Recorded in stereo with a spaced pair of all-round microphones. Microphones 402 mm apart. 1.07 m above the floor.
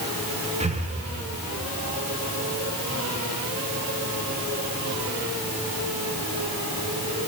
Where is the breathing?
15° right (ahead or behind), 0.9 m.